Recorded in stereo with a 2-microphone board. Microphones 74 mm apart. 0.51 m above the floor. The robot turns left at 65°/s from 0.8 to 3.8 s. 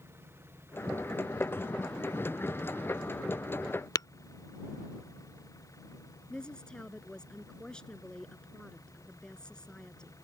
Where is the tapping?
60° left (ahead or behind).